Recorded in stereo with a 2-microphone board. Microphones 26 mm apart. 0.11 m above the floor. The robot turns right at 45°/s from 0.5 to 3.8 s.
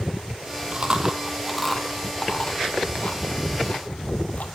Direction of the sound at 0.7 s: 40° right (ahead or behind).